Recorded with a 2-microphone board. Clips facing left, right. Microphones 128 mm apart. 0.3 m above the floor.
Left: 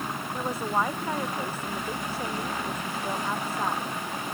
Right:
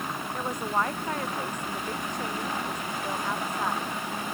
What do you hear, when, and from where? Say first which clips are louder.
0.3 s a woman speaking: left 1 dB; 5° left (ahead or behind)